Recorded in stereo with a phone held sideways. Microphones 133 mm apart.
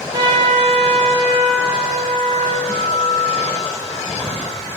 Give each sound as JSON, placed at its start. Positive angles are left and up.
{"t": 0.1, "sound": "a trumpet", "side_deg": -35, "distance_m": 4.0}
{"t": 2.7, "sound": "a guitar", "side_deg": -75, "distance_m": 5.0}